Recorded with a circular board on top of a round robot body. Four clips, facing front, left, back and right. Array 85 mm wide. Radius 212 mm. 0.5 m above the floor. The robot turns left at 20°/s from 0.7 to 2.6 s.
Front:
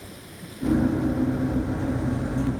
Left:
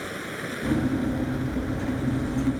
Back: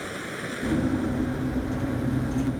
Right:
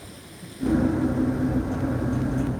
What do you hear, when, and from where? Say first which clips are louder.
0.0 s running water: left 10 dB, back 9 dB; 130° left; by 2.6 s 90° left